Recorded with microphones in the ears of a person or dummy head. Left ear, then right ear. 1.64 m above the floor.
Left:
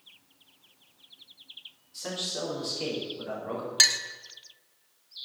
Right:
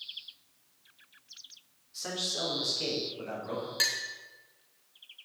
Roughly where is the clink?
Left.